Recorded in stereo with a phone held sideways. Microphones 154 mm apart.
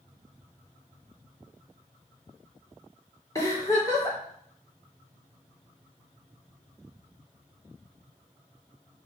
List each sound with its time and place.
3.4 s a giggle: 20° left (ahead or behind), 3.5 m